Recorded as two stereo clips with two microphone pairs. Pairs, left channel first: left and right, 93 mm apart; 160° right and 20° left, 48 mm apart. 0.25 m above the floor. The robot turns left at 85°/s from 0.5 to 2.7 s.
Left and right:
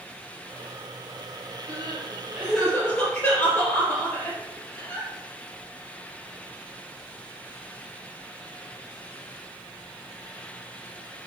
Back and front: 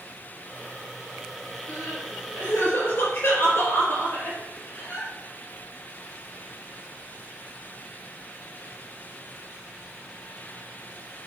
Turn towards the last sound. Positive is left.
turn(degrees=165)